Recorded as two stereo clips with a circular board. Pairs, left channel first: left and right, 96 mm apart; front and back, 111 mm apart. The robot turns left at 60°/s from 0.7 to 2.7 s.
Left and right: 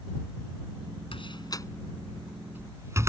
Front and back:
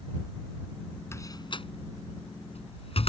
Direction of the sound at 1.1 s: 65° left.